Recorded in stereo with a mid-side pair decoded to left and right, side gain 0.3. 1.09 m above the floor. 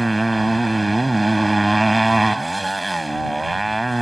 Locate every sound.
0.0 s a motorcycle: 15° right